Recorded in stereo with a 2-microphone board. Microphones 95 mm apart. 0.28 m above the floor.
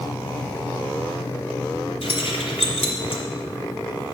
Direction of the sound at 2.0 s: 65° left (ahead or behind).